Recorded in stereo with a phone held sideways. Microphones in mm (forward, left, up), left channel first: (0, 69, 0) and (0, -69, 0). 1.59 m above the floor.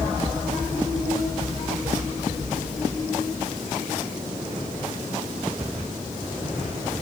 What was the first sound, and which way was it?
Only background noise.